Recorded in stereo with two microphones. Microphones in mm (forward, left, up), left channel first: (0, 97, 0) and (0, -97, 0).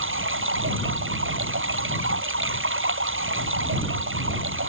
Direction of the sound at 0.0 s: 85° right.